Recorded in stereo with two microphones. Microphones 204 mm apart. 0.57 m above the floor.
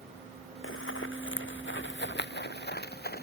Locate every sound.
0.6 s running footsteps: 80° left; by 3.2 s 50° left (ahead or behind)